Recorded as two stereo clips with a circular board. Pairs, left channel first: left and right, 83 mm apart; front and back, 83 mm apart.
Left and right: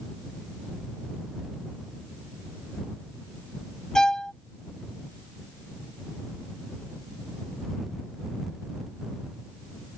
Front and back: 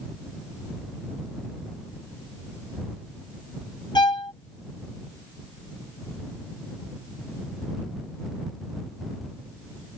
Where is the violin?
10° left.